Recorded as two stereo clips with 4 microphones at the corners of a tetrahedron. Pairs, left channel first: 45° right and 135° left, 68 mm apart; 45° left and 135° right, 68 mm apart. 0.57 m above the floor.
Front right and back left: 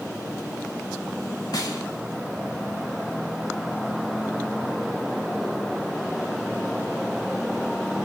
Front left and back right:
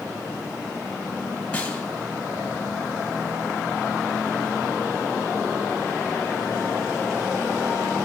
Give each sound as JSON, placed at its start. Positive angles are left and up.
{"t": 1.5, "sound": "a snare drum", "azimuth_deg": -25, "distance_m": 1.6}